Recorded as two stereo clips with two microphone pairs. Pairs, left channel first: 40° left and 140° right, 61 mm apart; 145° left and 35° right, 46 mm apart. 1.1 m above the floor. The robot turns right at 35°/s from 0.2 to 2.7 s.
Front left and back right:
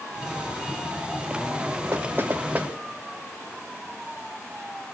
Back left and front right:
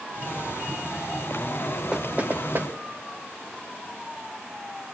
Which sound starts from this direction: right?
Knocking, at 1.9 s.